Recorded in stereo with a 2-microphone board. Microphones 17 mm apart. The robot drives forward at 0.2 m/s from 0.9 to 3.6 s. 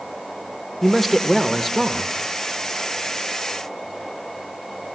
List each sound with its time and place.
0.8 s a man speaking: 10° left (ahead or behind), 1.3 m